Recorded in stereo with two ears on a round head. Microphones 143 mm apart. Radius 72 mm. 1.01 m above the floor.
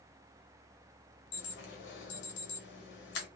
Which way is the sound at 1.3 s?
80° left.